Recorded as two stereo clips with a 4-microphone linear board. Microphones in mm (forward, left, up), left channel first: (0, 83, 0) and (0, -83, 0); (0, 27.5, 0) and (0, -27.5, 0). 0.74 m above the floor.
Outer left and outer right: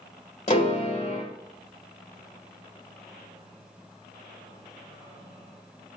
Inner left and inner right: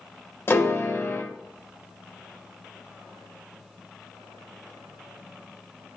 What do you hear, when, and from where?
0.5 s a piano: 45° left (ahead or behind), 1.7 m